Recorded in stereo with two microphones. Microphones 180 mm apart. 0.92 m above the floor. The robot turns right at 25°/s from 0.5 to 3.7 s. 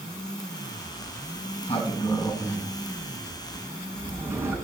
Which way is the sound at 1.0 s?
55° left (ahead or behind).